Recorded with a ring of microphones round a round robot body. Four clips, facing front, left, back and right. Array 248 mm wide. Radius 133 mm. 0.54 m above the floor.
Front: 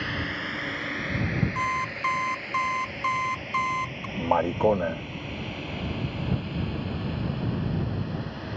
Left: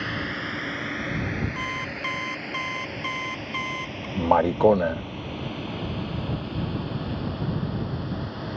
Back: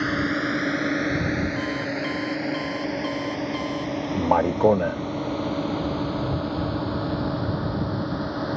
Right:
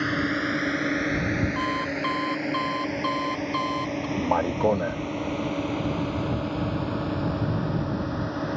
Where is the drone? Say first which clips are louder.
Right 5 dB, back 8 dB; 150° right; by 8.6 s 145° right.